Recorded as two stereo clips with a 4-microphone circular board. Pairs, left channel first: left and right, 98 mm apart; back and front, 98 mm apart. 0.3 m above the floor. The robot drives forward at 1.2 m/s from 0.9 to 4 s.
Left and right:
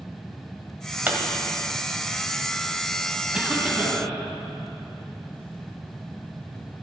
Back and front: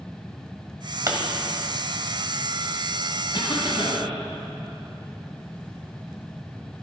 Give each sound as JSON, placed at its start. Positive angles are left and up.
{"t": 1.1, "sound": "a pop", "azimuth_deg": -30, "distance_m": 1.6}
{"t": 3.3, "sound": "a cough", "azimuth_deg": -170, "distance_m": 1.6}